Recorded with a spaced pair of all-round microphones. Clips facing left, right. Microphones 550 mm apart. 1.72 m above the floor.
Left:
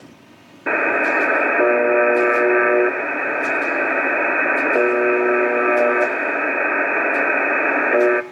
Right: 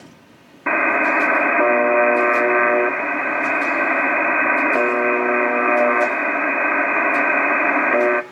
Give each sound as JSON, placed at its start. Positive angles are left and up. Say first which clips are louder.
{"t": 0.7, "sound": "a buzzer", "louder": "left 1 dB", "side_deg": -25, "distance_m": 0.8}